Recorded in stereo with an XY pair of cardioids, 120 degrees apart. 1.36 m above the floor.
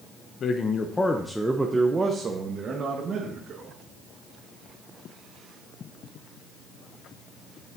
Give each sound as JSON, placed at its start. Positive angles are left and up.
{"t": 0.4, "sound": "a man speaking", "azimuth_deg": 50, "distance_m": 0.8}